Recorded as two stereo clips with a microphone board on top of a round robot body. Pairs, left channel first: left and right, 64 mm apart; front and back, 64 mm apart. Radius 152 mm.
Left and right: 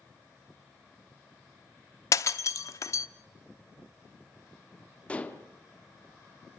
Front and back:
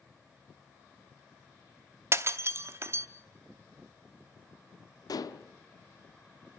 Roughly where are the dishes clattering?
Ahead.